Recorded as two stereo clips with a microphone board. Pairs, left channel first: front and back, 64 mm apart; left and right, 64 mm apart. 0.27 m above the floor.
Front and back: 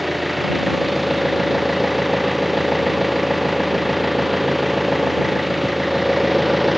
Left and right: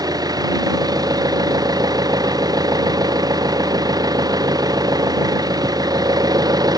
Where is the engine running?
90° right.